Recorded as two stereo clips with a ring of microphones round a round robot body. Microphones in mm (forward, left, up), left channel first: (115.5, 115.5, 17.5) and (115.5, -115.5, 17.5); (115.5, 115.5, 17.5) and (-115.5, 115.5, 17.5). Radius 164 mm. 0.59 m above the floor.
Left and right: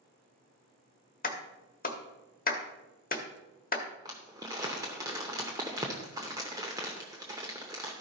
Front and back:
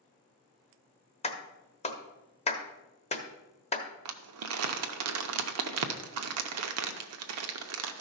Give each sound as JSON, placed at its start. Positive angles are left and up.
{"t": 1.2, "sound": "a clap", "azimuth_deg": 55, "distance_m": 1.3}
{"t": 4.0, "sound": "crumpling", "azimuth_deg": -170, "distance_m": 0.6}